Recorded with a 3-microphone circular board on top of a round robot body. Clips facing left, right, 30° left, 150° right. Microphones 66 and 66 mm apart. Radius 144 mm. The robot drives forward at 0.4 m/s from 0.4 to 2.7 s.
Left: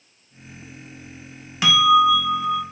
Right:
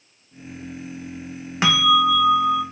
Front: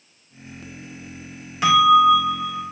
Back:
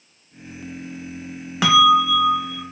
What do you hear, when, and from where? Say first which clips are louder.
1.6 s a bell: left 2 dB, front 1 dB; 150° right, 0.7 m; by 2.6 s 160° right, 1.0 m